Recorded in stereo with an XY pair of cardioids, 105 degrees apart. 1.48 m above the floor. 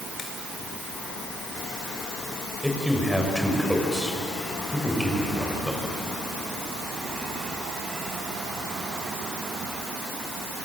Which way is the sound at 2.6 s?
5° left.